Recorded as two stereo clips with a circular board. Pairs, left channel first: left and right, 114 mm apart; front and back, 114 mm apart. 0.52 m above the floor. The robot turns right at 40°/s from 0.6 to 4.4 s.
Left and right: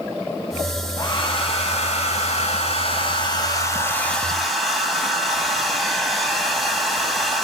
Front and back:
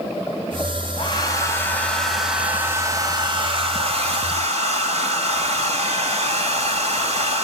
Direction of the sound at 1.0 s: 45° left.